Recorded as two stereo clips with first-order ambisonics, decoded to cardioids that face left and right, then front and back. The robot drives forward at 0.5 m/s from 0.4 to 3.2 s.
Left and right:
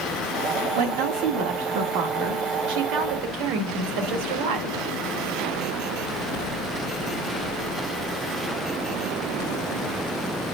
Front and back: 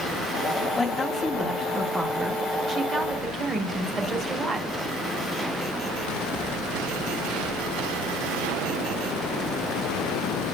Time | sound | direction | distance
0.8 | a woman speaking | 80° right | 2.5 m